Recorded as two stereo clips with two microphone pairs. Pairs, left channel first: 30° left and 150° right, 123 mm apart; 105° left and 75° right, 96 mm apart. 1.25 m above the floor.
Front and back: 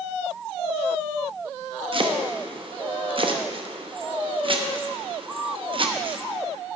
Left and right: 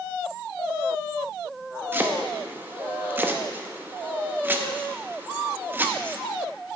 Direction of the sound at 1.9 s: 135° right.